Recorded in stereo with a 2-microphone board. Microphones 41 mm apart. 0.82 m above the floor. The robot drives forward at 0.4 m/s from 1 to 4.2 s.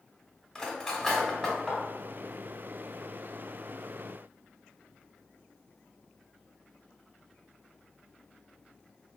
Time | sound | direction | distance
0.6 | cutlery clinking | 10° left (ahead or behind) | 1.0 m